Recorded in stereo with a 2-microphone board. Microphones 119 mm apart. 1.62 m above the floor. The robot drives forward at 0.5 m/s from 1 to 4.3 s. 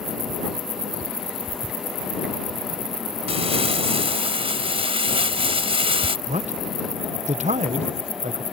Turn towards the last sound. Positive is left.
turn(degrees=-80)